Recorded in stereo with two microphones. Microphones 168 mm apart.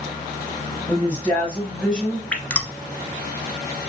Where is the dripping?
10° left (ahead or behind), 0.7 m.